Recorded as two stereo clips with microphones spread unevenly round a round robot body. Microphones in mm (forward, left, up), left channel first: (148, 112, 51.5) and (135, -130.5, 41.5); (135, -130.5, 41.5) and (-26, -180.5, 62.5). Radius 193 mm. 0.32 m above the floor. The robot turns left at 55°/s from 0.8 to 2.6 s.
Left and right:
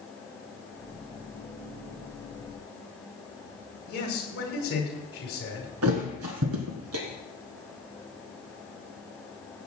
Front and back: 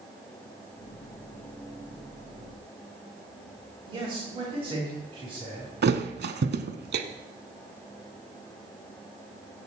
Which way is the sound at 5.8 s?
140° right.